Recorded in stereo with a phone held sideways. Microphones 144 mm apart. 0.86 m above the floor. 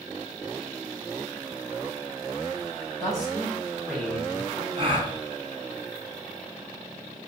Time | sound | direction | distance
3.0 | a man speaking | 30° left (ahead or behind) | 2.5 m
4.8 | a gasp | 40° right (ahead or behind) | 1.4 m